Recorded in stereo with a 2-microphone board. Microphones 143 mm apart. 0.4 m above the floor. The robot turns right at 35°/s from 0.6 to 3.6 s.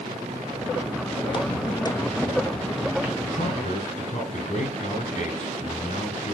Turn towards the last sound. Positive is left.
turn(degrees=55)  # may be behind; listen again after turning